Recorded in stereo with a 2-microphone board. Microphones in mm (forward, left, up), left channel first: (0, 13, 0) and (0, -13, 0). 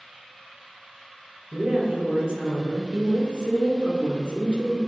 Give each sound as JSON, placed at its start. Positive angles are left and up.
{"t": 1.5, "sound": "a woman speaking", "side_deg": -45, "distance_m": 2.0}